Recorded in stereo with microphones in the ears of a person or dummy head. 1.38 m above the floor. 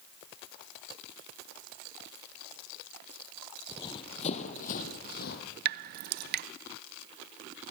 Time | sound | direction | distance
3.7 | running footsteps | 15° left (ahead or behind) | 2.5 m
5.7 | dripping | 60° right (ahead or behind) | 0.6 m